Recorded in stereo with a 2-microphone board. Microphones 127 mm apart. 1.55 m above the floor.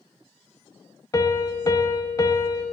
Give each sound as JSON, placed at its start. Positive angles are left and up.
{"t": 1.1, "sound": "a piano", "side_deg": 30, "distance_m": 0.5}